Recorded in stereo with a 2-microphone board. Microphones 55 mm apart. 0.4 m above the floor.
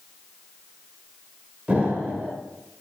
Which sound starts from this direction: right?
An explosion, at 1.7 s.